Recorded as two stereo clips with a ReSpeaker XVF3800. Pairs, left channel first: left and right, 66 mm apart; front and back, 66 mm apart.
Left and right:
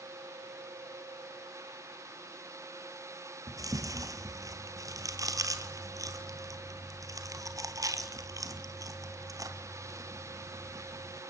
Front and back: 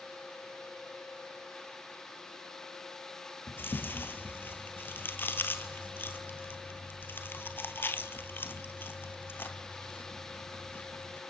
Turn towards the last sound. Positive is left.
turn(degrees=-60)